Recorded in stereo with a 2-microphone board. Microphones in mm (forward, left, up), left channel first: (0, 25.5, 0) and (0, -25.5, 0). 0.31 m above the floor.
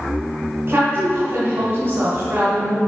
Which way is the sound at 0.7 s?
45° right (ahead or behind).